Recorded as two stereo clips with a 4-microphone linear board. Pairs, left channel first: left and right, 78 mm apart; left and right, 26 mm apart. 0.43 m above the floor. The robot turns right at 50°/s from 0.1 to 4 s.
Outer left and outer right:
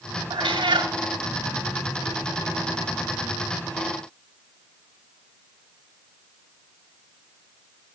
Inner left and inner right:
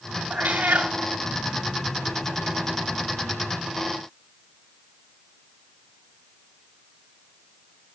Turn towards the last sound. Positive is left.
turn(degrees=85)